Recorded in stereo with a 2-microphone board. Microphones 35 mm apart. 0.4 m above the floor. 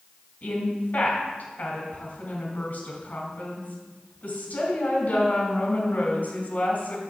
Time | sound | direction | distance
0.4 | a woman speaking | 50° left (ahead or behind) | 3.5 m